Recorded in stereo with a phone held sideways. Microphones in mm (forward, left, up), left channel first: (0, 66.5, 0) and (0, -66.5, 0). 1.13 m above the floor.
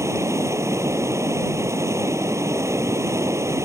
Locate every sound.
0.0 s running water: 20° right (ahead or behind)